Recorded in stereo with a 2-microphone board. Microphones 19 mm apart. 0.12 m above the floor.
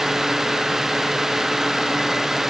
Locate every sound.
Only background noise.